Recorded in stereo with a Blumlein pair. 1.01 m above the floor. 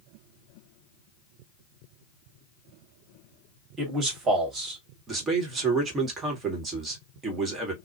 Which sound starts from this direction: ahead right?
A man speaking, at 3.8 s.